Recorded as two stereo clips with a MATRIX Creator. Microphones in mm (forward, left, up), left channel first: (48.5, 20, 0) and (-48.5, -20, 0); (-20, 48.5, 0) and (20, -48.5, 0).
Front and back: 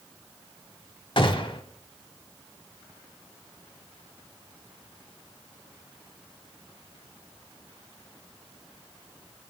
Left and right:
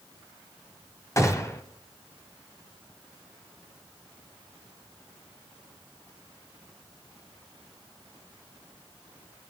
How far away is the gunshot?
About 1.4 m.